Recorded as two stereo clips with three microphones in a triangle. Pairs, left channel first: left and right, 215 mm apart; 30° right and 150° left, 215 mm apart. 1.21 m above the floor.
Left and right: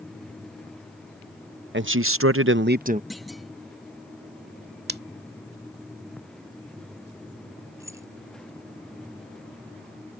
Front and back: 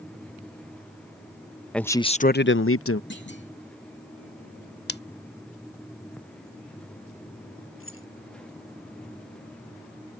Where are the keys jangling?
15° right.